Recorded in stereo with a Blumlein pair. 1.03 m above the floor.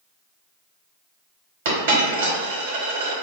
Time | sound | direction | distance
1.6 | a dropped coin | 65° right | 1.4 m